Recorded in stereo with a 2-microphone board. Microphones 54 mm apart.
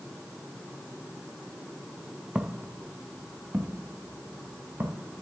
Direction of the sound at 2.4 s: 20° right (ahead or behind).